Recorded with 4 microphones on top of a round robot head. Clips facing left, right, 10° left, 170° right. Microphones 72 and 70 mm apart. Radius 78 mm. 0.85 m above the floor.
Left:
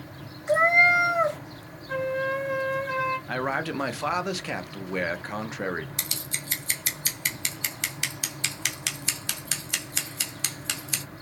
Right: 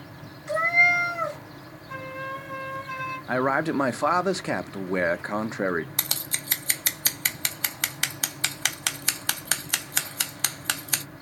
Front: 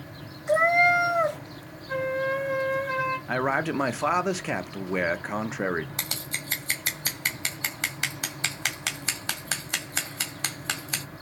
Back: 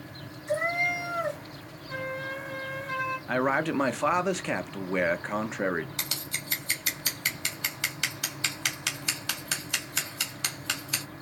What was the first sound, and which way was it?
A cat meowing, 35° left.